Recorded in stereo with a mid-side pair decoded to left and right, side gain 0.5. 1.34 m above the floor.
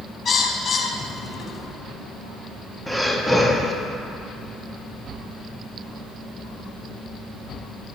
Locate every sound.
0.2 s a bird: 40° left, 1.0 m
2.9 s breathing: 5° right, 0.8 m